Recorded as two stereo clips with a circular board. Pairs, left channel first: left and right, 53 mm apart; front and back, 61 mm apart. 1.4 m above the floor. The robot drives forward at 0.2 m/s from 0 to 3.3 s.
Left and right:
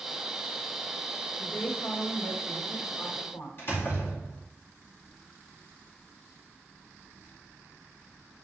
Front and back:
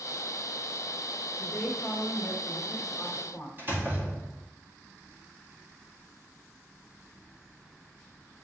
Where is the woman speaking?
65° left, 2 m; by 3.5 s 75° left, 2 m.